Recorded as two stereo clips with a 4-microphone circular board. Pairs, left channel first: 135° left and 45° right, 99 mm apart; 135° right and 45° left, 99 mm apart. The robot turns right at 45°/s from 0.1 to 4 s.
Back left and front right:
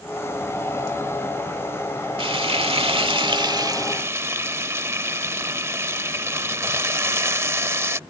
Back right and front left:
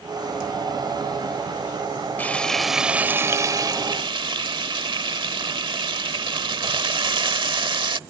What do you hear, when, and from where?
2.2 s frying: 65° right; by 8.0 s 15° left